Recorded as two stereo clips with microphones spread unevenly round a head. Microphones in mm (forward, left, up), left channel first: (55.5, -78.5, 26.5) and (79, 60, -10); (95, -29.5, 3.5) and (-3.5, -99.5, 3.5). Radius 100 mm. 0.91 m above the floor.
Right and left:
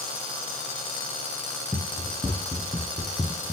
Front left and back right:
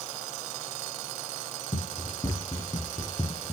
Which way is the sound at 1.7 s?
20° right.